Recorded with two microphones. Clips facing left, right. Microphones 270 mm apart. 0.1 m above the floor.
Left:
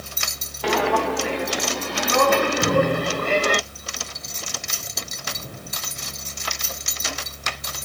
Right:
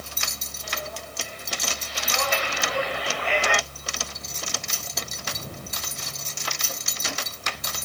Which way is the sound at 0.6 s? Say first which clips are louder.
Left 18 dB; 75° left (ahead or behind).